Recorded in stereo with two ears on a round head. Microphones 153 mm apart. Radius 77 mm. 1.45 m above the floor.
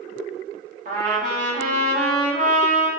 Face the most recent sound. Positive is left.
turn(degrees=-45)  # may be behind; listen again after turning